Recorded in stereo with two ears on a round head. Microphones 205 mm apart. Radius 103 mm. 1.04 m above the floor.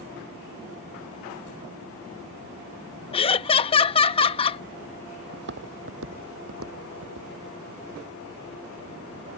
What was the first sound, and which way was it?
Laughter, 25° left (ahead or behind).